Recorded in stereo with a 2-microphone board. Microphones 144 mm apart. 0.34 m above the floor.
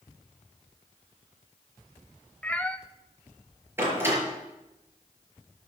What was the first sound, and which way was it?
A cat meowing, 10° left (ahead or behind).